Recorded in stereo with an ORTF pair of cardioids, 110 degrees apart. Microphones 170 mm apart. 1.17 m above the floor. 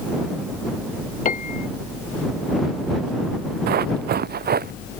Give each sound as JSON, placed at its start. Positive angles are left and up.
{"t": 1.2, "sound": "a piano", "azimuth_deg": 50}
{"t": 3.7, "sound": "running footsteps", "azimuth_deg": -70}